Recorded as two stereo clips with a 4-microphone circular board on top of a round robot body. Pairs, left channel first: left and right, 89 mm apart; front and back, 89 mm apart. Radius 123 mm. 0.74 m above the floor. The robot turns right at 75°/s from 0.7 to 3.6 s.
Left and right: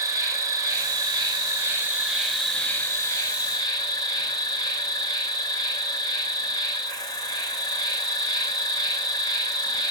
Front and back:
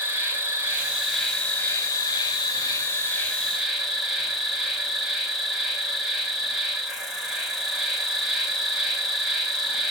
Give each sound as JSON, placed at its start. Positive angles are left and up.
{"t": 0.0, "sound": "an insect", "azimuth_deg": -125, "distance_m": 2.0}